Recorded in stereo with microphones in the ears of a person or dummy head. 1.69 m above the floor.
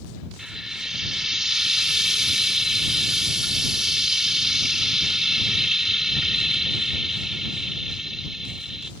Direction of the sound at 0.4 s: 5° right (ahead or behind).